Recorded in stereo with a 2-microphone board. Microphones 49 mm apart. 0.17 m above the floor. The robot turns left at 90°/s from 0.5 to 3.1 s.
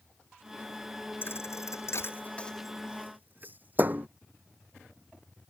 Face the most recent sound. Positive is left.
turn(degrees=-35)  # may be behind; listen again after turning